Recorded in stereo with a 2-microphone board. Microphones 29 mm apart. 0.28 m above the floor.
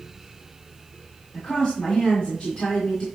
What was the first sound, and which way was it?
A woman speaking, 35° left (ahead or behind).